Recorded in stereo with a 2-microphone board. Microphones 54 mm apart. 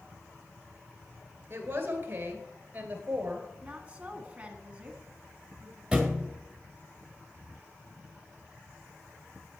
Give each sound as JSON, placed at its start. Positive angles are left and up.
{"t": 1.5, "sound": "a woman speaking", "side_deg": -40, "distance_m": 1.8}
{"t": 3.6, "sound": "a woman speaking", "side_deg": -25, "distance_m": 1.3}
{"t": 5.9, "sound": "a thud", "side_deg": -10, "distance_m": 1.5}